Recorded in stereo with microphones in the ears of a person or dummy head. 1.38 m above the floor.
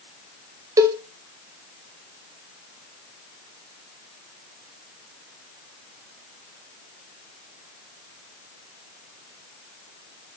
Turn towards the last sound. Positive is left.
turn(degrees=-20)  # may be behind; listen again after turning